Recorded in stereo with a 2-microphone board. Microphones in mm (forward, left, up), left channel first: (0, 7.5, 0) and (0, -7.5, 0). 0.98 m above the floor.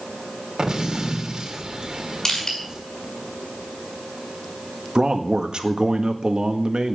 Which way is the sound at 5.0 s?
60° right (ahead or behind).